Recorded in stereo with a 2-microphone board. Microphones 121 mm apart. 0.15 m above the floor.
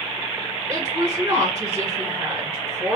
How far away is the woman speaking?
About 1.9 m.